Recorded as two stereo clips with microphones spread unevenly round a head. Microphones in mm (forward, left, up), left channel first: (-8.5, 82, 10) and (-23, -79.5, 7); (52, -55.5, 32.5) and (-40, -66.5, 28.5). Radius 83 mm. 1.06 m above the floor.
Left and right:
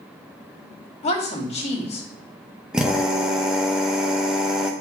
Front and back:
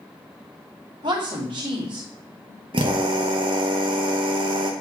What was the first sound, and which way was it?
A woman speaking, 140° left.